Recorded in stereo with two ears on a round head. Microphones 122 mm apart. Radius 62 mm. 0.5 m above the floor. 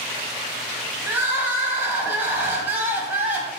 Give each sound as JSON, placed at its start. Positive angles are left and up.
{"t": 1.1, "sound": "crying", "side_deg": -15, "distance_m": 0.7}